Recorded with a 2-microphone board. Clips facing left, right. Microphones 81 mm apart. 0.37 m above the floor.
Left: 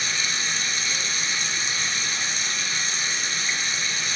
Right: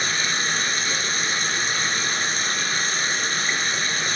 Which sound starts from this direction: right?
Running water, at 0.0 s.